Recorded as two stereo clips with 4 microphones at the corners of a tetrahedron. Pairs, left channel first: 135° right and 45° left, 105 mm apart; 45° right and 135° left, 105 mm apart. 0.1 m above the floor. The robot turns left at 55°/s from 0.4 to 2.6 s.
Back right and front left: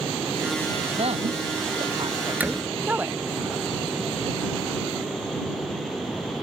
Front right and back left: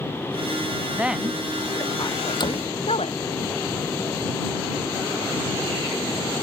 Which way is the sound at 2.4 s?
25° right.